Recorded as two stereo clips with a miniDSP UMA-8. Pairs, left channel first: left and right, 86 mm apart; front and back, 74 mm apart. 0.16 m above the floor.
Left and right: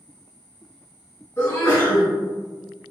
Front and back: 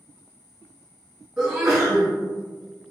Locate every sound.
1.4 s a sneeze: 100° left, 1.8 m